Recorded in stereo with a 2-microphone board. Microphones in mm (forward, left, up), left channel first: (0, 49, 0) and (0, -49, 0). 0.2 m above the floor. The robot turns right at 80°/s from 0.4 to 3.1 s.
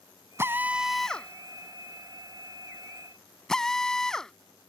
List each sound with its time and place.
0.4 s a drill: 25° right (ahead or behind); by 4.3 s 5° left (ahead or behind)